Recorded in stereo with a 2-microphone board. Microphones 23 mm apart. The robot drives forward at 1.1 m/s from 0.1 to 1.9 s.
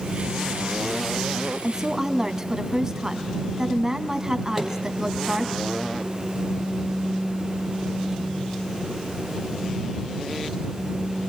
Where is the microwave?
5° right (ahead or behind), 4.5 m.